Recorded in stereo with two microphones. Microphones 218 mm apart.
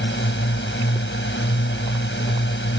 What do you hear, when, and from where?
0.0 s a drone: 60° left (ahead or behind)